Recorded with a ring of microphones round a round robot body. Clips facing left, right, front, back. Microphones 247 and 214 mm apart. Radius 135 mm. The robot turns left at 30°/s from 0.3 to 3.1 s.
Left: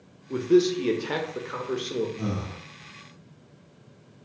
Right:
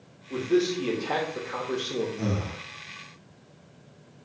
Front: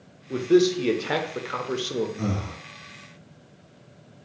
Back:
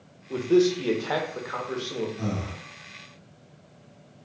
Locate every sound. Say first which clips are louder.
0.3 s a man speaking: left 4 dB, front 2 dB; 65° left, 0.7 m; by 2.1 s 15° left, 0.7 m
2.2 s breathing: right 1 dB, front 2 dB; 10° right, 1.3 m; by 2.6 s 20° right, 1.3 m